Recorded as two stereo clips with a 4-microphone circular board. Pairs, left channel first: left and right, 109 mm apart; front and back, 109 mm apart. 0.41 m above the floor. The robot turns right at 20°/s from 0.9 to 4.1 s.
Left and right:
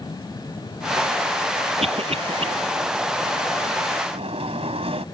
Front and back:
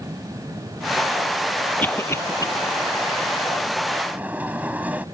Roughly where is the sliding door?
Right.